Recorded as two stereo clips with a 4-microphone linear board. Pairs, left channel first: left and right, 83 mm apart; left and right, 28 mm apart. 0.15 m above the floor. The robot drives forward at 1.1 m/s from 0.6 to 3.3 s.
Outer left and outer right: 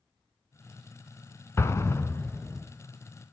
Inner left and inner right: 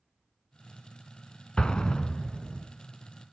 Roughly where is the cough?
No cough in this recording.